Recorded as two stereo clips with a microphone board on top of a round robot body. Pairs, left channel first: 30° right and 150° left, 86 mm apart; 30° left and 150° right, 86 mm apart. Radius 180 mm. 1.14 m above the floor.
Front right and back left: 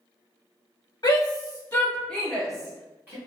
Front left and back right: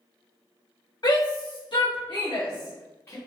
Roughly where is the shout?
Ahead.